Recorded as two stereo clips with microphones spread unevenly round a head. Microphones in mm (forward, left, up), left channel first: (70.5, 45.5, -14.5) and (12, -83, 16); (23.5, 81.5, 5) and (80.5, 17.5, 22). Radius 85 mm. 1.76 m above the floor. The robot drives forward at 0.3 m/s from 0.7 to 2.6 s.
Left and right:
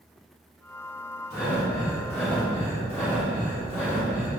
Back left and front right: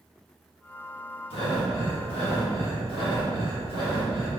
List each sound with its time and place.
1.3 s breathing: 135° left, 1.5 m; by 4.3 s 145° left, 1.8 m